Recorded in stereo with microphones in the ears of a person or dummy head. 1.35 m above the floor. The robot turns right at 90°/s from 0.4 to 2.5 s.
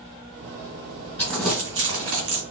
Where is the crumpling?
15° left (ahead or behind), 1.7 m; by 2.4 s 50° right (ahead or behind), 1.7 m.